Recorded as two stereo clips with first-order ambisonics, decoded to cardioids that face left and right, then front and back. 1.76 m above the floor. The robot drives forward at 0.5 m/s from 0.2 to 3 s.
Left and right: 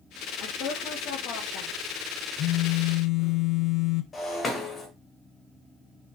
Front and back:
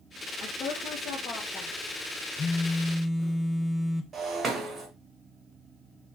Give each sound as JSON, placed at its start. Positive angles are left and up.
{"t": 0.4, "sound": "a woman speaking", "azimuth_deg": 50, "distance_m": 2.5}
{"t": 2.4, "sound": "a phone buzzing", "azimuth_deg": 55, "distance_m": 0.9}
{"t": 4.1, "sound": "breaking glass", "azimuth_deg": 135, "distance_m": 1.7}